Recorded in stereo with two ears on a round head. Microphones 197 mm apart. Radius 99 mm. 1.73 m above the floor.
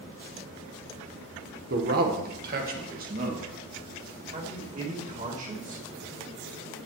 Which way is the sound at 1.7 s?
45° right (ahead or behind).